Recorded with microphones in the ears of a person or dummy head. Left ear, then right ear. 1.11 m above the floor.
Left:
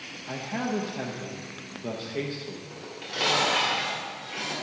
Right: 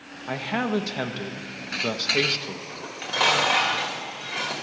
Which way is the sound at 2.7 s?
35° right (ahead or behind).